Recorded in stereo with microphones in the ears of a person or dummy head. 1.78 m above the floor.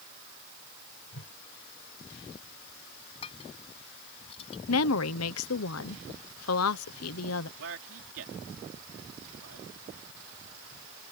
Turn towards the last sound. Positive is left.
turn(degrees=-75)  # may be behind; listen again after turning